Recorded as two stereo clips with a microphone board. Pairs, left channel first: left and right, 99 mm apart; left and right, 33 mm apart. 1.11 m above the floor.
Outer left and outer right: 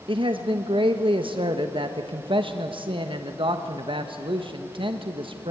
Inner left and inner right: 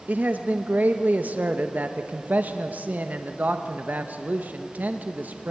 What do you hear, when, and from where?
0.1 s a man speaking: 65° right (ahead or behind), 1.3 m